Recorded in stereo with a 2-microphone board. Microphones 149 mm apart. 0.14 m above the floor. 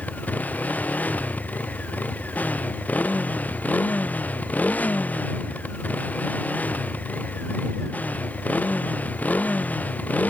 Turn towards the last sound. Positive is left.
turn(degrees=10)  # may be behind; listen again after turning